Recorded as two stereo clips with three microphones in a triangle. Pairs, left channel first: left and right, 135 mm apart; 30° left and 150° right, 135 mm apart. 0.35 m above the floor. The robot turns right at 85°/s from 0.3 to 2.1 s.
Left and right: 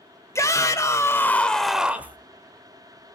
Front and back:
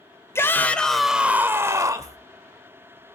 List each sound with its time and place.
0.3 s a shout: 65° left, 1.1 m; by 2.2 s 145° right, 1.1 m